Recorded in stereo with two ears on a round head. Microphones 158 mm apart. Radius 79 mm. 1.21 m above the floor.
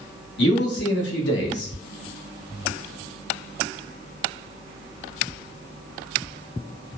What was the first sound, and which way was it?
A man speaking, 70° left (ahead or behind).